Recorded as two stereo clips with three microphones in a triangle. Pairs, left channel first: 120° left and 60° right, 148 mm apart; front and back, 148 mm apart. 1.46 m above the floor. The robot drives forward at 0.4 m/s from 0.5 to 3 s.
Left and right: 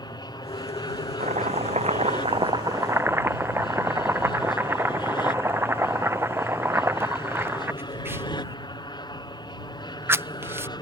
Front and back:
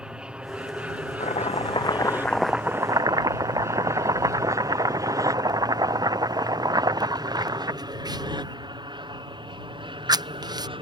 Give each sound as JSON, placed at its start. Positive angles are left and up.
{"t": 0.0, "sound": "an aircraft", "azimuth_deg": 100}
{"t": 1.2, "sound": "chopping", "azimuth_deg": -30}